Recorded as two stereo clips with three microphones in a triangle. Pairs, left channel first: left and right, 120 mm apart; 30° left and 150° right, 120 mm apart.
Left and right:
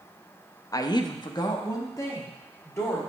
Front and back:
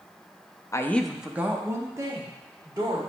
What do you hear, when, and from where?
0.7 s a woman speaking: 65° left, 0.5 m; by 3.0 s 155° left, 2 m